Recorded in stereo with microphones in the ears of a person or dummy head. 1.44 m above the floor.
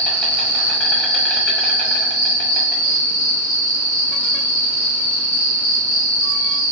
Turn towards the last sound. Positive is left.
turn(degrees=5)  # may be behind; listen again after turning